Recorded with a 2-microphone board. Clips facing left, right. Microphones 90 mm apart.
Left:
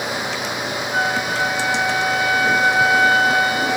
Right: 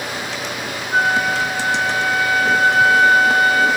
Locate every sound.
0.9 s a flute: 45° right (ahead or behind), 4 m